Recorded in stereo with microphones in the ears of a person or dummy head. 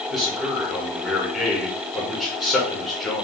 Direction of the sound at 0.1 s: Centre (ahead or behind).